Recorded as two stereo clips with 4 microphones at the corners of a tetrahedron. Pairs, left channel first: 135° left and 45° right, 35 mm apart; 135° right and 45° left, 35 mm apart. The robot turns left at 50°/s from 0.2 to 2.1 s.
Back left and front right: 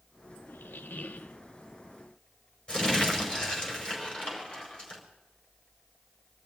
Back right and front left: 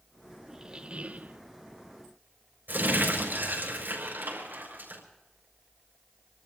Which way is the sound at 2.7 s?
65° left.